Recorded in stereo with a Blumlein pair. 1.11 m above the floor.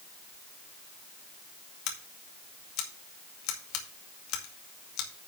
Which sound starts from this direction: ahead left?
Scissors, at 1.9 s.